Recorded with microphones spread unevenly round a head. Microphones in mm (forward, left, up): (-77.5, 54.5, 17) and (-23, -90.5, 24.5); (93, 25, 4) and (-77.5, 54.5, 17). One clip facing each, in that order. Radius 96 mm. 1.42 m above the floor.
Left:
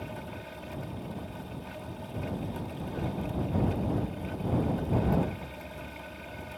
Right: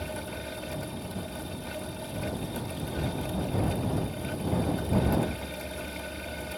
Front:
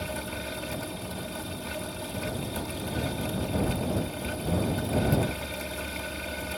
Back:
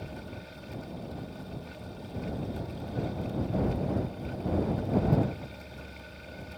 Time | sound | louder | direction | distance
0.0 | a fan | right 4 dB, front 7 dB | 10° right | ?